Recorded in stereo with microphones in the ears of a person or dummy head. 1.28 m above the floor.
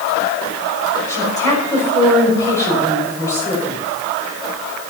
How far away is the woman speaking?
About 6 m.